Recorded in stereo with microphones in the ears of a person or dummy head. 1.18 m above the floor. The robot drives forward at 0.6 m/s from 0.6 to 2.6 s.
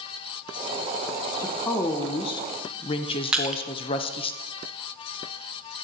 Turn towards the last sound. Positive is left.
turn(degrees=0)  # may be behind; listen again after turning